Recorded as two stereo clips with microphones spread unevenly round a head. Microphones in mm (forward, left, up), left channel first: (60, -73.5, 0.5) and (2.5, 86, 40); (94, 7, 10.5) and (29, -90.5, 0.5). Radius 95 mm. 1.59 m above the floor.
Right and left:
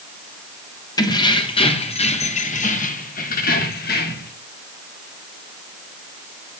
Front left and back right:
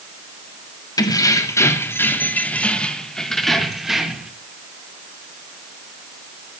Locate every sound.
1.0 s keys jangling: straight ahead, 2.5 m; by 4.3 s 40° right, 3.5 m